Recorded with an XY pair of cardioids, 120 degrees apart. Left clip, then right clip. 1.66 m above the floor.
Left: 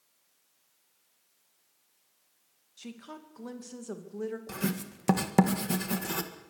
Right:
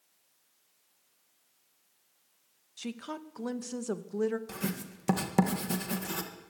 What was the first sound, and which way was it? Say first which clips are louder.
A woman speaking: right 6 dB; 35° right.